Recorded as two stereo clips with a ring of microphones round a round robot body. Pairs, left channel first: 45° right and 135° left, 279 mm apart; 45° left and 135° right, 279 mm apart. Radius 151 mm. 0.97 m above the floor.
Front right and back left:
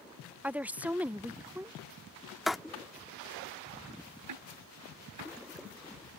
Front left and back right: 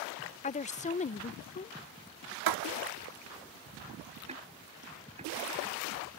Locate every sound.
0.4 s a woman speaking: 60° left
2.5 s writing: 135° right
4.3 s ticking: 155° left